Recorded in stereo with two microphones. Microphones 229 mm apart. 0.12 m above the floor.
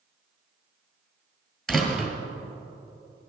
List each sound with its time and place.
1.7 s a door slam: centre (ahead or behind), 1.6 m